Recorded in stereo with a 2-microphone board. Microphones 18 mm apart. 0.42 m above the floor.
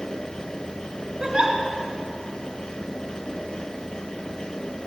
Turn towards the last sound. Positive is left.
turn(degrees=-35)  # may be behind; listen again after turning